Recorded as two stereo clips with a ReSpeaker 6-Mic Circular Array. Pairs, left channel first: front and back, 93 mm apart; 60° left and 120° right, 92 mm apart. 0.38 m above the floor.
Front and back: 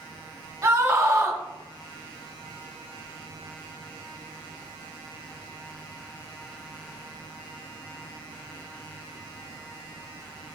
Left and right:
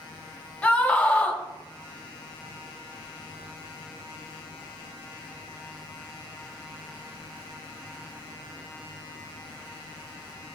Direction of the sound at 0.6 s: 130° left.